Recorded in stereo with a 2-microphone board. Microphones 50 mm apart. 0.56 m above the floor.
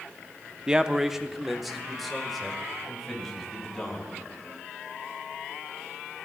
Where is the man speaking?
20° right (ahead or behind), 0.7 m; by 4.1 s 5° left (ahead or behind), 4 m.